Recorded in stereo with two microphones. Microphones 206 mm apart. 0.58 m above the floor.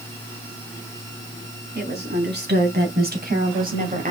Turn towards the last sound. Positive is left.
turn(degrees=-40)  # may be behind; listen again after turning